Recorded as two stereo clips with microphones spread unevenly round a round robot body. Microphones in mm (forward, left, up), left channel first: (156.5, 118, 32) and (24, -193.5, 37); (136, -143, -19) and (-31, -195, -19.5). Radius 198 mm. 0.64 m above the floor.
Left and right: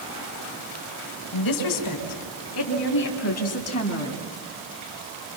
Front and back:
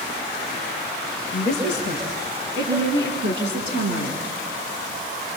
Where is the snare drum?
No snare drum in this recording.